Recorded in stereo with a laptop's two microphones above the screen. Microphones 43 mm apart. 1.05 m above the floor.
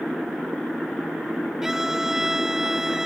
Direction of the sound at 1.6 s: 10° right (ahead or behind).